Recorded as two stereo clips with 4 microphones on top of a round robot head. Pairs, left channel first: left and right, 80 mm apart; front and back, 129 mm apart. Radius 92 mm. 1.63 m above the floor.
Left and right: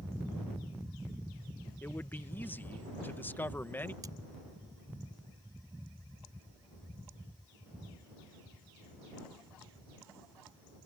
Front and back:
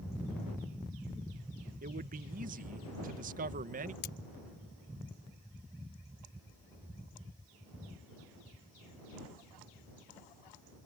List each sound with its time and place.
1.8 s a man speaking: 155° left
4.0 s cutlery clinking: 25° right